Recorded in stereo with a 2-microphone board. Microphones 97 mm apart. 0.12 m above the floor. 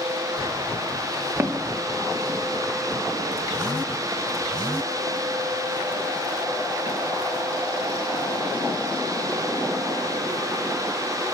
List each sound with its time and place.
1.4 s footsteps: 25° right (ahead or behind), 1.1 m; by 8.8 s 85° right, 6 m